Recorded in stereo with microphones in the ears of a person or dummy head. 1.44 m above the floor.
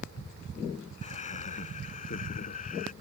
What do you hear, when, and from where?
1.0 s laughter: 30° left (ahead or behind); by 2.9 s 35° left (ahead or behind)